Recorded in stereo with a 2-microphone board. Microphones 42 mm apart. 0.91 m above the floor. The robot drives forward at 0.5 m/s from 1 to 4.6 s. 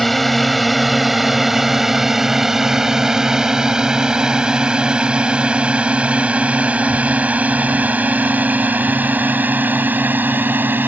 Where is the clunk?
I don't hear a clunk.